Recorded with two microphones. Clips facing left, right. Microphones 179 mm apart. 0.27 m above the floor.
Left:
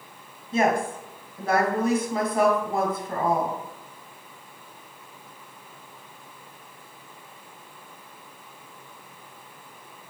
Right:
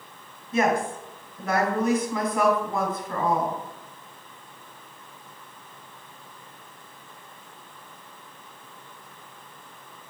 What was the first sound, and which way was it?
A woman speaking, 30° left (ahead or behind).